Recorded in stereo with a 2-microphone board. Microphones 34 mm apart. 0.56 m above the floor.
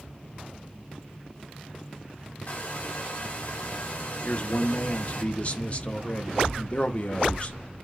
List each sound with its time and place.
2.5 s a hair dryer: 50° left (ahead or behind), 1.9 m
4.2 s a man speaking: 40° left (ahead or behind), 0.9 m